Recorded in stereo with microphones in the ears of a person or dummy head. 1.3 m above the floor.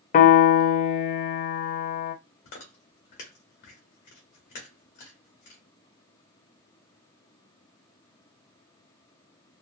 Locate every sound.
0.1 s a piano: 45° left (ahead or behind), 0.5 m
2.5 s chewing: 40° left (ahead or behind), 1.1 m